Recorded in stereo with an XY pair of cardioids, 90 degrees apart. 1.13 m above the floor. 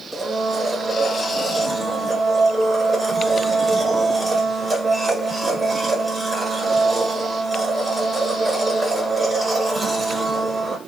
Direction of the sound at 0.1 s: 20° right.